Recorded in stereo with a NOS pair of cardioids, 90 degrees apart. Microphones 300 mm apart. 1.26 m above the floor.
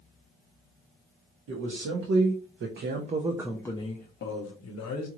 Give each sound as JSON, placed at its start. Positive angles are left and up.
{"t": 1.5, "sound": "a man speaking", "azimuth_deg": -65, "distance_m": 1.2}